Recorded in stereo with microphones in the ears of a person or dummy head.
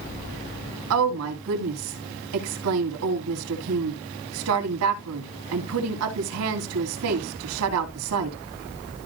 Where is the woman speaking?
80° right, 2.5 m.